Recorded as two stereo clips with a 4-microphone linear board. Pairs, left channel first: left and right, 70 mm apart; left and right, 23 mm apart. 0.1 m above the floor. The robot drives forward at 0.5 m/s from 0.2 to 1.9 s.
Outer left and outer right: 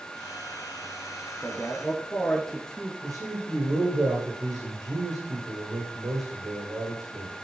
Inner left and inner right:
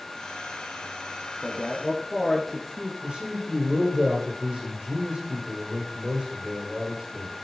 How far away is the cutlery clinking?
No cutlery clinking in this recording.